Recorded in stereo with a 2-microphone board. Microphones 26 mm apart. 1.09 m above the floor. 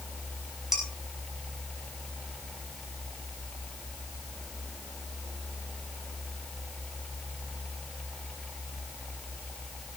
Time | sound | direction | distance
0.7 | dishes clattering | 20° right (ahead or behind) | 5.5 m